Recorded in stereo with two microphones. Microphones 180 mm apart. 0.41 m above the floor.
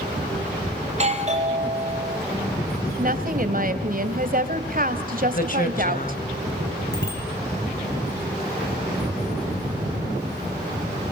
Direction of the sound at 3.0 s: 55° right (ahead or behind).